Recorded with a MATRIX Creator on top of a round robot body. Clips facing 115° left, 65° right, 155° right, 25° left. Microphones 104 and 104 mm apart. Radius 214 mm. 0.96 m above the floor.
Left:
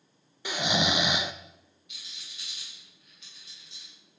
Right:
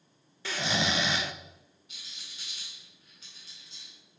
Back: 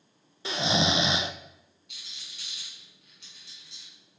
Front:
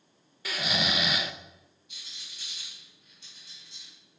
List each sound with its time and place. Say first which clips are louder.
0.5 s snoring: left 3 dB, back 5 dB; 170° left, 0.6 m
1.9 s a rattle: even, back 1 dB; 125° right, 1.3 m